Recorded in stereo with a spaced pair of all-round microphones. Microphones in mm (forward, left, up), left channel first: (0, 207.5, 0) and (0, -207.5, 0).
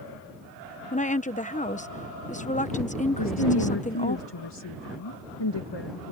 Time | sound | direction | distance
0.9 | a woman speaking | 20° left (ahead or behind) | ?
3.2 | a woman speaking | 80° left | ?